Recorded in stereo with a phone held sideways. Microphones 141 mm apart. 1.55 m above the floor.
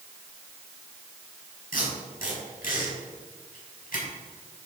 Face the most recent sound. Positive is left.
turn(degrees=75)  # may be behind; listen again after turning